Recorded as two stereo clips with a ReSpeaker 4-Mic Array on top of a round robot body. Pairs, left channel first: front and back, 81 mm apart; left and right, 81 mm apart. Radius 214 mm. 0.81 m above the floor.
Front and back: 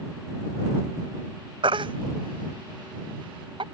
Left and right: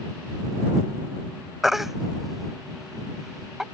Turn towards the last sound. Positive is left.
turn(degrees=180)